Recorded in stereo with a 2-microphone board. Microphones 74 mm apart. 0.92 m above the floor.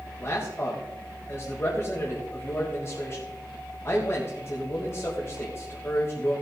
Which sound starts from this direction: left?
A man speaking, at 0.2 s.